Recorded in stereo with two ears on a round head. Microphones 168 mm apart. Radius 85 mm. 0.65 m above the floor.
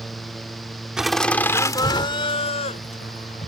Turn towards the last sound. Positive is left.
turn(degrees=45)  # may be behind; listen again after turning